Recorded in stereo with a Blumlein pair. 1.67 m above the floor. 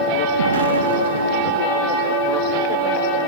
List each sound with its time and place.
0.4 s an explosion: 65° right, 1.9 m